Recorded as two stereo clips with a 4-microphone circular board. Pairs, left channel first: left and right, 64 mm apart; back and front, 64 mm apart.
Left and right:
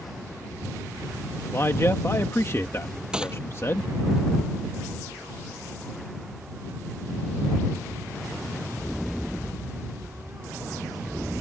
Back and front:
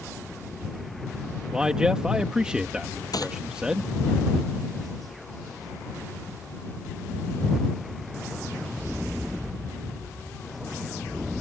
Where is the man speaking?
75° left.